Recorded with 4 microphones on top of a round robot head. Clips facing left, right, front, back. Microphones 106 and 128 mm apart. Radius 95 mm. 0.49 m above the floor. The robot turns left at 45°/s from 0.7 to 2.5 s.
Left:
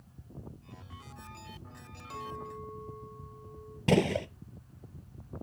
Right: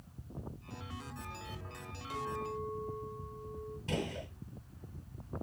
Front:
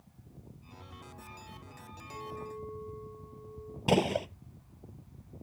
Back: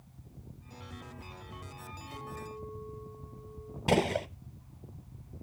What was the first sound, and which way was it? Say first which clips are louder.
A clink: right 3 dB, front 2 dB; straight ahead.